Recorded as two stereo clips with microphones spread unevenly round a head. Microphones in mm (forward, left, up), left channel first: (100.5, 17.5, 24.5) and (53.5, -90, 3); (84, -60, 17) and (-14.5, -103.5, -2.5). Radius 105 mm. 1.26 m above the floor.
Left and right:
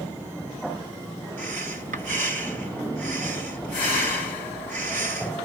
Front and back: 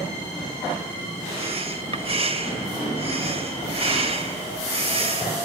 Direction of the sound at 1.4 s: 125° right.